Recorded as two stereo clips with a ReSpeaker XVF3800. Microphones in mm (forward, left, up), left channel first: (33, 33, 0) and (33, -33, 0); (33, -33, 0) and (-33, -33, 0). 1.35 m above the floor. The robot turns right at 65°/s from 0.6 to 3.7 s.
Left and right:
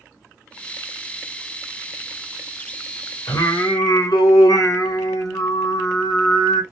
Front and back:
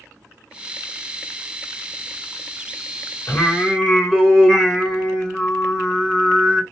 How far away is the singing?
About 1.1 m.